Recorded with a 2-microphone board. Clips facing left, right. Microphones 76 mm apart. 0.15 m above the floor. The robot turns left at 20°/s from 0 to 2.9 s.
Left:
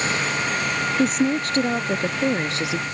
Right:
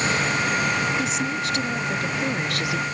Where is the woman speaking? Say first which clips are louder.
Left 5 dB; 65° left; by 2.9 s 30° left.